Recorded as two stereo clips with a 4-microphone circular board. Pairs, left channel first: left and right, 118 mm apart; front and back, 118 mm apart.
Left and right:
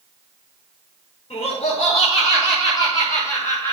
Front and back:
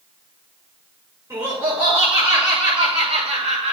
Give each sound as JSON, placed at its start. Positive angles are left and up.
{"t": 1.3, "sound": "laughter", "azimuth_deg": 120, "distance_m": 5.5}